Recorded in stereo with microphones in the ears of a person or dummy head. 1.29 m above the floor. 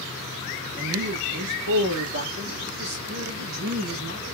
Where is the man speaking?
50° right (ahead or behind), 1.3 m; by 4.2 s 70° right (ahead or behind), 2 m.